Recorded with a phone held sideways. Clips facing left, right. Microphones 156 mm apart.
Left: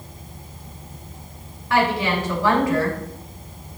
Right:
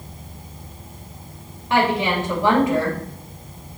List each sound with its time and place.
1.7 s a woman speaking: 25° right (ahead or behind), 3 m